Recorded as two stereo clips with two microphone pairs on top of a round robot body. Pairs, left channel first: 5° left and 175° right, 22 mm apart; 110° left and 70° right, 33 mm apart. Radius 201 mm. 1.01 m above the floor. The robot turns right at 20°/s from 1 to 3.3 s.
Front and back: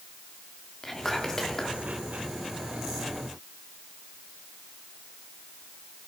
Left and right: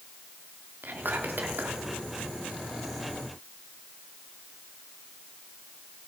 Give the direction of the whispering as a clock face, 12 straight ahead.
2 o'clock.